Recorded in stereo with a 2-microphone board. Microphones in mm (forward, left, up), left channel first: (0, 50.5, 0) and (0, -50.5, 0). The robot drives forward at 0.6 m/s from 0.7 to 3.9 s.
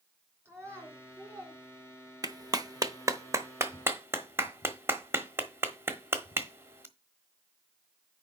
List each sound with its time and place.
0.5 s a child speaking: 25° right (ahead or behind), 4 m; by 1.6 s 30° right (ahead or behind), 3.5 m
2.2 s a clap: 40° right (ahead or behind), 0.8 m; by 6.9 s 25° right (ahead or behind), 1.2 m